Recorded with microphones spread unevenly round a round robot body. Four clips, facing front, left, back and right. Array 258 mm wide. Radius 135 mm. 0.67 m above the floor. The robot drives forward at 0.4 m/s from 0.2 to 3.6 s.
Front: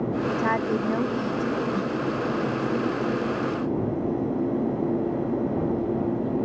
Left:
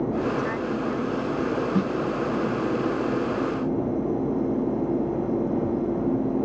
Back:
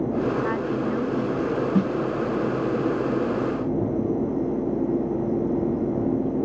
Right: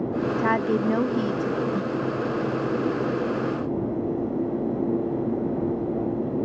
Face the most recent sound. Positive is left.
turn(degrees=150)